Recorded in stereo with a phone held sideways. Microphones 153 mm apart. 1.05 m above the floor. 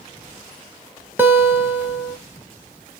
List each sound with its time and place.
1.2 s a guitar: 15° right (ahead or behind), 1.6 m